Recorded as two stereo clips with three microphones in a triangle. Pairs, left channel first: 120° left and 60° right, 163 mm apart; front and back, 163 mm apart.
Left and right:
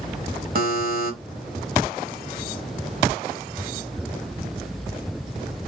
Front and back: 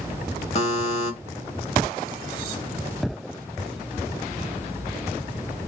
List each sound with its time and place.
0.6 s a buzzer: 45° right, 0.7 m